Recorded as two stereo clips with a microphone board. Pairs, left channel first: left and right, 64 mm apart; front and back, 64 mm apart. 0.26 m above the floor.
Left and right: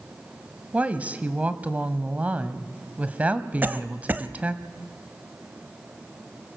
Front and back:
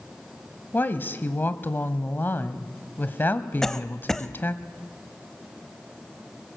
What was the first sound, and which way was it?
A woman speaking, 40° right.